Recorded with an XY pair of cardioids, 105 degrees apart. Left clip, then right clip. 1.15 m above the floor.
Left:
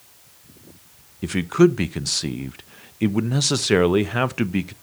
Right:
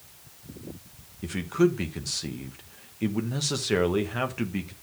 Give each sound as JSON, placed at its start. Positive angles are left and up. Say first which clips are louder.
{"t": 1.2, "sound": "a man speaking", "louder": "left 7 dB", "azimuth_deg": 50, "distance_m": 0.8}